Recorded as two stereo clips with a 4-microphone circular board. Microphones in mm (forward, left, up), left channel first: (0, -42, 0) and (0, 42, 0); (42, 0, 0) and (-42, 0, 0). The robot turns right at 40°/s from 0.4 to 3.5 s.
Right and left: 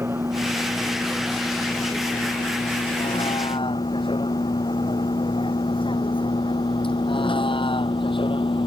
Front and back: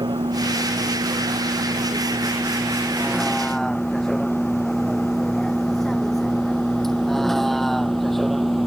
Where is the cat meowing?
I don't hear a cat meowing.